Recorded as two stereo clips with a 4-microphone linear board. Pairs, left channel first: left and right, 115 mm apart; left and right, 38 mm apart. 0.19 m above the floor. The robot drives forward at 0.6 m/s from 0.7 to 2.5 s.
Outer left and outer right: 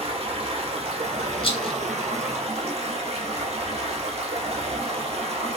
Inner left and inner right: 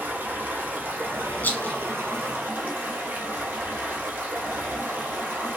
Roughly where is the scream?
No scream in this recording.